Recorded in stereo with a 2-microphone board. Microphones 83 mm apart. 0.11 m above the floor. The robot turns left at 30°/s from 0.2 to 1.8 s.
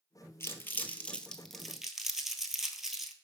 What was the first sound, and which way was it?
Crumpling, 35° left (ahead or behind).